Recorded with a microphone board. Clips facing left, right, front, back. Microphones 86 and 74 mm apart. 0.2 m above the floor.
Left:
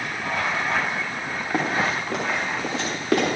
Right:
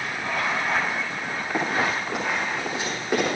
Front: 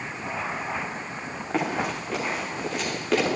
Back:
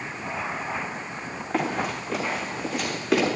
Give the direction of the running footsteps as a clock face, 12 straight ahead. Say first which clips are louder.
Left 1 dB, even; 9 o'clock.